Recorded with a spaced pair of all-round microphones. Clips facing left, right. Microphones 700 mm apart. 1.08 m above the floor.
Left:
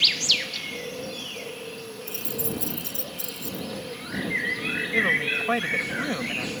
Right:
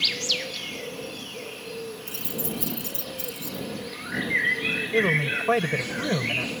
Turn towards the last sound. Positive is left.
turn(degrees=-65)  # may be behind; listen again after turning